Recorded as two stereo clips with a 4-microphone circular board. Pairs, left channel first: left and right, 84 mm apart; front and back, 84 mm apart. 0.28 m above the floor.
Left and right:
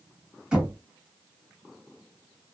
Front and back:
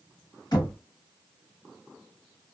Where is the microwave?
I don't hear a microwave.